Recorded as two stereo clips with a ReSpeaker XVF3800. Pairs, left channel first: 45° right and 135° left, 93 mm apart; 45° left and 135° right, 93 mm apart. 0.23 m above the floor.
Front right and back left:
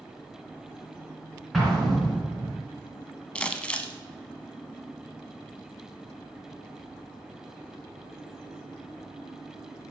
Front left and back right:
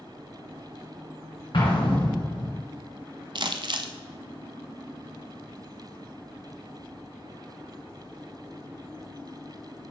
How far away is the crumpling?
About 0.6 m.